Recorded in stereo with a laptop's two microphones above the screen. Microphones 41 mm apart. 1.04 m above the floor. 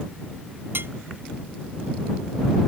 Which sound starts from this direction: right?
Dishes clattering, at 0.7 s.